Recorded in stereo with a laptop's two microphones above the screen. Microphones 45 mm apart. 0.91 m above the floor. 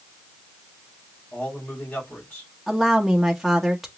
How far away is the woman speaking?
About 0.9 m.